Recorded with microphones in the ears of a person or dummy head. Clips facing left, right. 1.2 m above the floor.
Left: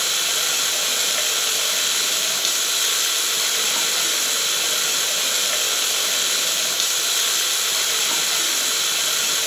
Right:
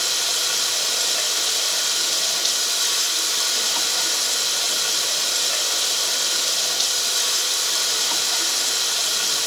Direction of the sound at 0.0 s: 35° left (ahead or behind).